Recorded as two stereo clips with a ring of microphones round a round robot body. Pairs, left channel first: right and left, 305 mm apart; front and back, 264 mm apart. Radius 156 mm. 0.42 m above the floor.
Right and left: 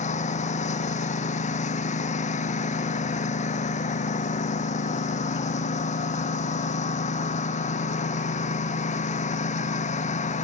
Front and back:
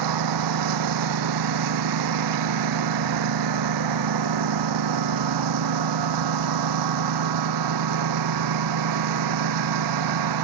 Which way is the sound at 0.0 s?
160° right.